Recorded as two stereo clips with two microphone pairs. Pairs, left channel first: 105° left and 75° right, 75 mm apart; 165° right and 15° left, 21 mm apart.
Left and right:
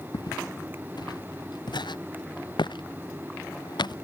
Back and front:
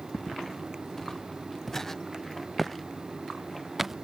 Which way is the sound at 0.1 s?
130° left.